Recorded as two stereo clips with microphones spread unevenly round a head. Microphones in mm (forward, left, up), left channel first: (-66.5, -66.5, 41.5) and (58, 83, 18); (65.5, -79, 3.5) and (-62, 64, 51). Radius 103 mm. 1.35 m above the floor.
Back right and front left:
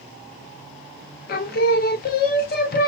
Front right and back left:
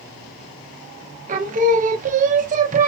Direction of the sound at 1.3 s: 175° right.